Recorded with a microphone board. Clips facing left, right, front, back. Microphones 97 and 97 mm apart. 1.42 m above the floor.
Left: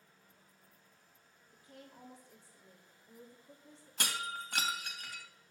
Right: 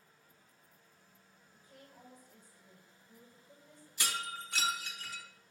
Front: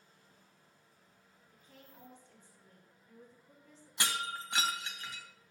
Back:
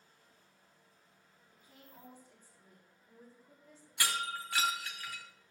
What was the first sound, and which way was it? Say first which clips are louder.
A woman speaking: left 3 dB, even; 110° left.